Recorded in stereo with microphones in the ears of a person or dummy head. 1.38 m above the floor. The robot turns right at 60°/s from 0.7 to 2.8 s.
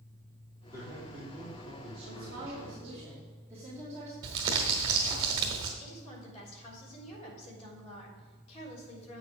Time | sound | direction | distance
0.7 | a man speaking | 150° right | 3 m
2.0 | a woman speaking | 65° right | 2.5 m
4.2 | crumpling | 20° right (ahead or behind) | 1.2 m
5.8 | a woman speaking | 40° left (ahead or behind) | 3.5 m